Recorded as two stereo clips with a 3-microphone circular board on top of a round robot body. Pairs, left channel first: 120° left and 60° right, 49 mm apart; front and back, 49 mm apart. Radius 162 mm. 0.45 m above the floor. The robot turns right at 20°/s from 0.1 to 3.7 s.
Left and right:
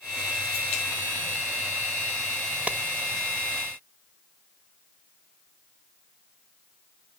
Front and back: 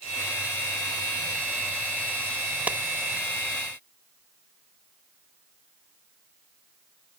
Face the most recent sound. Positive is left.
turn(degrees=-100)